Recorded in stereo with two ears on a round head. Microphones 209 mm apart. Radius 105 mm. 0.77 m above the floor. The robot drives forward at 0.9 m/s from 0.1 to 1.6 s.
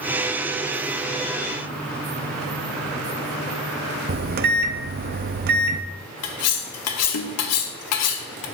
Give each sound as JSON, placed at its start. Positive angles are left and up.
{"t": 4.1, "sound": "a microwave", "side_deg": -40, "distance_m": 0.6}
{"t": 6.2, "sound": "cutlery clinking", "side_deg": 70, "distance_m": 0.9}